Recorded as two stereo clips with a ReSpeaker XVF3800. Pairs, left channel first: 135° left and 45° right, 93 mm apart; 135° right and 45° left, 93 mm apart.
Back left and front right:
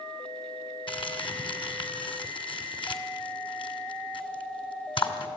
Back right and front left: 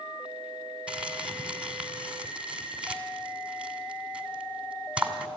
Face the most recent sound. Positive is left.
turn(degrees=120)